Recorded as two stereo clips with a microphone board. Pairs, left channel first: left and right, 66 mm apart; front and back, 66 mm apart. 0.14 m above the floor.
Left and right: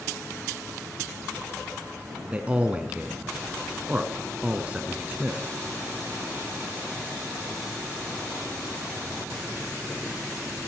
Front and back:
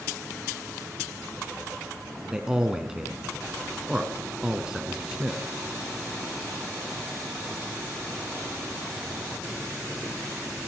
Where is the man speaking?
120° right, 1.1 m.